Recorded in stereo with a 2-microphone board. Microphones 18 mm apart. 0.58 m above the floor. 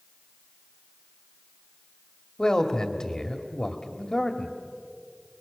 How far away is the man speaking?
About 1.6 m.